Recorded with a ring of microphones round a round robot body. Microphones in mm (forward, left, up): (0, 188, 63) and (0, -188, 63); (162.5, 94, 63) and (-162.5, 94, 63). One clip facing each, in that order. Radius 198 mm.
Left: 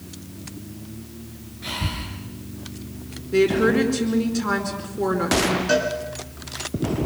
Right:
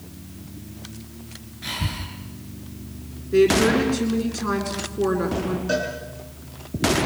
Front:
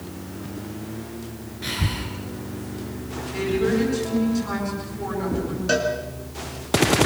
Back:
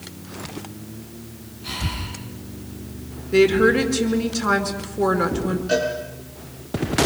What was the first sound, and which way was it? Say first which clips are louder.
Breathing: left 1 dB, front 3 dB; 15° right.